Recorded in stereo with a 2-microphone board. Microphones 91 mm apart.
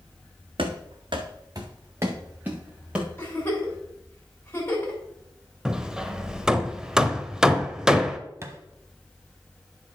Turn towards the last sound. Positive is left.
turn(degrees=-30)  # may be behind; listen again after turning